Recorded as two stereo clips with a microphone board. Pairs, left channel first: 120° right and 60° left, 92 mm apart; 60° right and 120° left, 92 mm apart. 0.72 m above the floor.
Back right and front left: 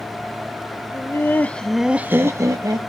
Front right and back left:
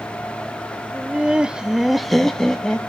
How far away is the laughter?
About 0.9 m.